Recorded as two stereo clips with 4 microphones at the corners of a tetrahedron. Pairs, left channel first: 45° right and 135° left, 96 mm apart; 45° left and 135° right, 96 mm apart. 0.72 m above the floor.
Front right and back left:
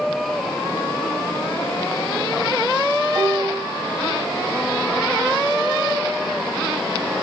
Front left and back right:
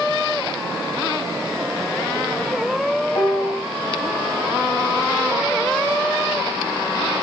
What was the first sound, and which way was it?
A piano, 60° left.